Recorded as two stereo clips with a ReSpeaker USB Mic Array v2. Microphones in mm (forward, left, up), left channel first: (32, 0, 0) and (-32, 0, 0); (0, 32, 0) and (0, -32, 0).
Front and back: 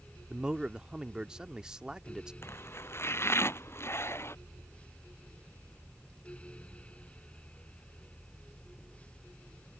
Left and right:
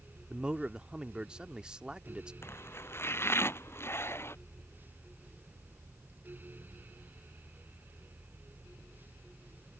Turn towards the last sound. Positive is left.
turn(degrees=45)